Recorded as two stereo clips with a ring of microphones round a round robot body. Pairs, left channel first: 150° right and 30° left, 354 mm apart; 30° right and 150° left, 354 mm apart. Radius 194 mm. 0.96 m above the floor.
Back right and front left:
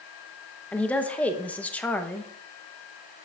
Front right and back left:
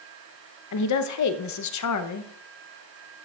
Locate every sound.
0.7 s a woman speaking: 65° right, 0.8 m